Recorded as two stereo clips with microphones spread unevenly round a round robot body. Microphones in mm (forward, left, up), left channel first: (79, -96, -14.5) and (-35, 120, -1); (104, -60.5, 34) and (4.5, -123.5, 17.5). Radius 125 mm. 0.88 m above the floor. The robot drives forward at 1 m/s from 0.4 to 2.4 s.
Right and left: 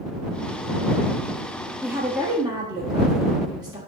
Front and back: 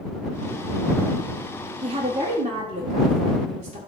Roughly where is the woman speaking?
Behind right.